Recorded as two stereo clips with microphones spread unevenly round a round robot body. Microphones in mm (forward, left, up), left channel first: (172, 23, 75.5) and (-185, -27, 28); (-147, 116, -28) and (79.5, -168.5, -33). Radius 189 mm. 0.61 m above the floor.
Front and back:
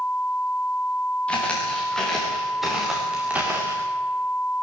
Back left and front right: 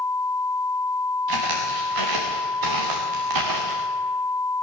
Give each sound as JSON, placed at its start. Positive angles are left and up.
{"t": 1.3, "sound": "footsteps", "azimuth_deg": -80, "distance_m": 6.0}